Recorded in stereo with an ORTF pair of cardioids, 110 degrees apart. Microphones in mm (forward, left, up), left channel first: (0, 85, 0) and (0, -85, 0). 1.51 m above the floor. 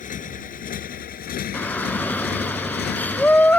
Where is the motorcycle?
50° left; by 3.6 s 70° left.